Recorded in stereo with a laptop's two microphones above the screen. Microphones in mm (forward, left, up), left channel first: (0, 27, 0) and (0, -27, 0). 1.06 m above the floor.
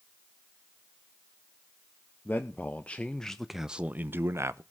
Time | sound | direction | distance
2.2 | a man speaking | 35° left (ahead or behind) | 1.0 m